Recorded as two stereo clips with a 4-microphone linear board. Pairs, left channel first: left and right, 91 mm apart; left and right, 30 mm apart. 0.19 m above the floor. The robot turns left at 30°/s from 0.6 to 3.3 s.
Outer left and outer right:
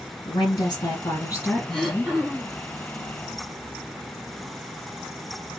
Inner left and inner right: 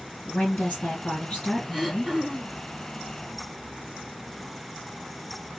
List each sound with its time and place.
0.2 s a woman speaking: 65° left, 3.5 m; by 2.1 s 15° left, 3.5 m
1.7 s throat clearing: 5° left (ahead or behind), 2.5 m; by 2.6 s 20° right (ahead or behind), 2.5 m